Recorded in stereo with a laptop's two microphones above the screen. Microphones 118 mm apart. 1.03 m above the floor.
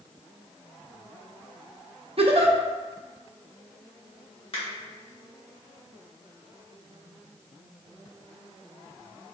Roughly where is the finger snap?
Left.